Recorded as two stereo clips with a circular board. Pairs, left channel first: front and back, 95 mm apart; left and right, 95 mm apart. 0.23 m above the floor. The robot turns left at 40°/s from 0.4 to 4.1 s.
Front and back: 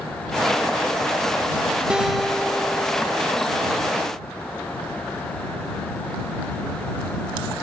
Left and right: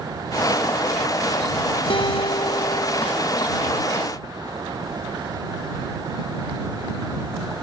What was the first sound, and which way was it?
A guitar, 100° left.